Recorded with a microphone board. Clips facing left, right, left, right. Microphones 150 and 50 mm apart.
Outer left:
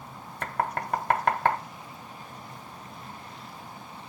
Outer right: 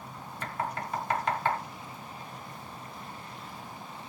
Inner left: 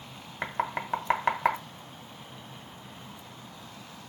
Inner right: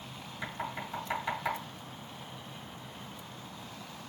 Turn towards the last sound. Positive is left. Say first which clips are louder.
# outer left 5 dB, inner left 7 dB
turn(degrees=55)  # may be behind; listen again after turning